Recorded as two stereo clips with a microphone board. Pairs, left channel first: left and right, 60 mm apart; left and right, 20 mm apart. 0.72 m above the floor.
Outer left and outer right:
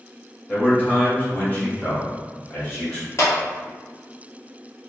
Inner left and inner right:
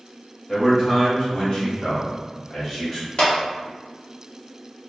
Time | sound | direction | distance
0.5 | a man speaking | 20° left (ahead or behind) | 1.2 m
3.2 | a clap | 50° left (ahead or behind) | 1.0 m